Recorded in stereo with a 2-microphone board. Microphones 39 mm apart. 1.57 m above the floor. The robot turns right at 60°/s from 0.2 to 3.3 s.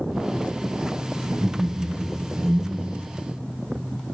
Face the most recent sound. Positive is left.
turn(degrees=45)